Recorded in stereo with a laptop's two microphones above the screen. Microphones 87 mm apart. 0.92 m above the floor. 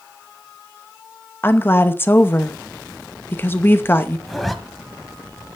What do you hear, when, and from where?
1.4 s a woman speaking: 25° left (ahead or behind), 0.7 m
4.3 s a zipper: centre (ahead or behind), 1.4 m